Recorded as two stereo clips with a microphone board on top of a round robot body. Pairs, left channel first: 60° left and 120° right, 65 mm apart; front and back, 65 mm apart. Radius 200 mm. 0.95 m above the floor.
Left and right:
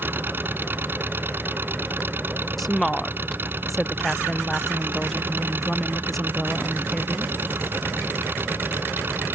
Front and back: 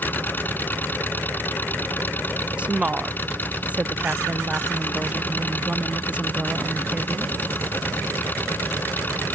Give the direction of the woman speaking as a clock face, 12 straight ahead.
7 o'clock.